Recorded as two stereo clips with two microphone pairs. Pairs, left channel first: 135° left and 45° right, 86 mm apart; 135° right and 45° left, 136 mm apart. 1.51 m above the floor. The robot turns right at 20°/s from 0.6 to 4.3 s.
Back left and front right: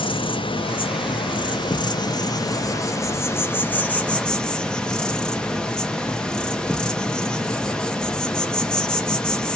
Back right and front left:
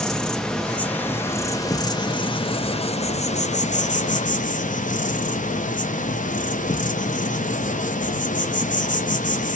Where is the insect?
145° left, 0.8 m; by 9.6 s 145° right, 0.8 m.